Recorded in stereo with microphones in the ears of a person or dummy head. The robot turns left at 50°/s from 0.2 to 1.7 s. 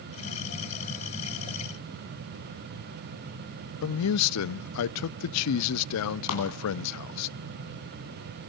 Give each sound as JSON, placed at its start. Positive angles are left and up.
{"t": 3.8, "sound": "a man speaking", "side_deg": 80, "distance_m": 0.6}
{"t": 6.3, "sound": "a clap", "side_deg": 75, "distance_m": 9.5}